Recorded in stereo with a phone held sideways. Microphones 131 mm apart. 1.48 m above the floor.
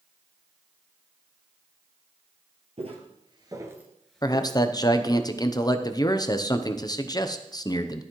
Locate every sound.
2.8 s footsteps: 50° right (ahead or behind), 2 m; by 5.2 s 40° left (ahead or behind), 2 m
4.2 s a man speaking: 30° left (ahead or behind), 0.7 m